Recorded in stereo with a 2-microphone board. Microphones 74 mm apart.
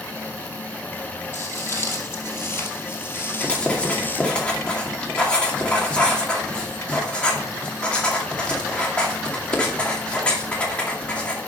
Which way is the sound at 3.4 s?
15° left (ahead or behind).